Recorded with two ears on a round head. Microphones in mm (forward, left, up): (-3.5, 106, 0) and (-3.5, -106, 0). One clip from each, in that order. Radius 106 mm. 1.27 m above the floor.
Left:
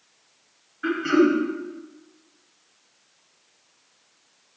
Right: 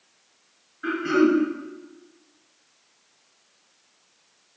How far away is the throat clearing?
About 2.5 m.